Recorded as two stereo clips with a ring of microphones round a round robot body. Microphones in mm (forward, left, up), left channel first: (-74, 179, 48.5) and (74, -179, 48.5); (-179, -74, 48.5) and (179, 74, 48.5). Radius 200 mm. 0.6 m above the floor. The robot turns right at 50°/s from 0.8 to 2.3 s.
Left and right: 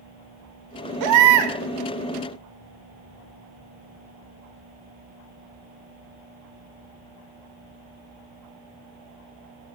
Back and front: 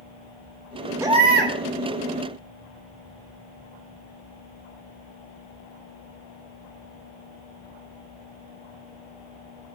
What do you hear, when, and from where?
1.0 s a baby crying: 60° right, 1.9 m; by 1.5 s 35° right, 1.9 m